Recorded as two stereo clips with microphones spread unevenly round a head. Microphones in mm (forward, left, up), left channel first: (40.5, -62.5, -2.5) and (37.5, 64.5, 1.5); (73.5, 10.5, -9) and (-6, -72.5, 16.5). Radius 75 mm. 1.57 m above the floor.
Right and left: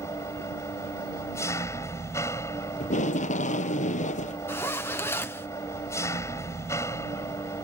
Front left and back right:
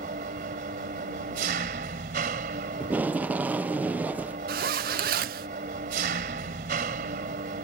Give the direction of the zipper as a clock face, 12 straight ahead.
6 o'clock.